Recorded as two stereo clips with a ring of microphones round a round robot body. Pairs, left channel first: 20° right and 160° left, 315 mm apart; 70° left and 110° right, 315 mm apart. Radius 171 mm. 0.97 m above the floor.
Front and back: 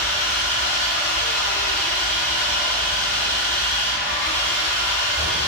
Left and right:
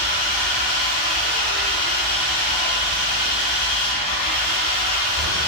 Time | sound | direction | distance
0.0 | an engine running | 60° left | 1.2 m